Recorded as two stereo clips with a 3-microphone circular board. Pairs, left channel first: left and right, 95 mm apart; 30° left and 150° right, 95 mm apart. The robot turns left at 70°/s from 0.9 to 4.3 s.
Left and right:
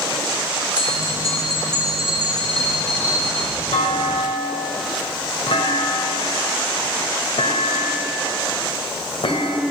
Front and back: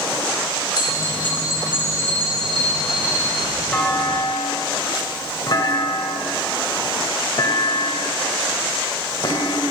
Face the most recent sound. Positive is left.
turn(degrees=70)